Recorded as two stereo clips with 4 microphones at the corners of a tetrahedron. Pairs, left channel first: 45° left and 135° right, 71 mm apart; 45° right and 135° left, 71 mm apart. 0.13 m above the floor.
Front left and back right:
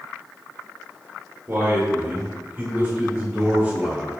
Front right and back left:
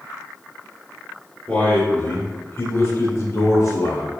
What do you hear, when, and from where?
1.5 s a man speaking: 105° right, 1.9 m; by 4.1 s 60° right, 3 m